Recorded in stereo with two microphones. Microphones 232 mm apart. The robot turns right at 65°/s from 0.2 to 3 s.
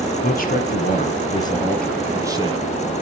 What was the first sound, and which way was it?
A man speaking, 70° left.